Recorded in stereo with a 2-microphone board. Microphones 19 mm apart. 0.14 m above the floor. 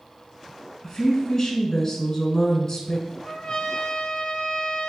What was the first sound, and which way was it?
A woman speaking, 30° left (ahead or behind).